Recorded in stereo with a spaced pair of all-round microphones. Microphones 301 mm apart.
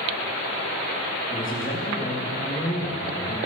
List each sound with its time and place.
1.3 s a man speaking: 40° left (ahead or behind), 3 m